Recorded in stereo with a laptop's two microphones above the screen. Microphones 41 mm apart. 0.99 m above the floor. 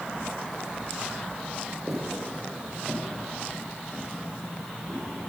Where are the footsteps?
Centre (ahead or behind), 1.8 m; by 5.1 s 25° left (ahead or behind), 3 m.